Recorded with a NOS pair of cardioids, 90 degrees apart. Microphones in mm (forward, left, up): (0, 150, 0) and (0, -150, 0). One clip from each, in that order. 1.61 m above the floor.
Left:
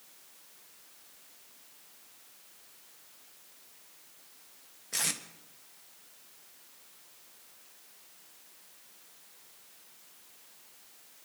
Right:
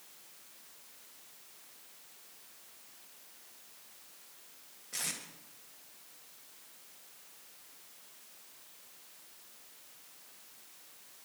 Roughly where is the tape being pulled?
Ahead left.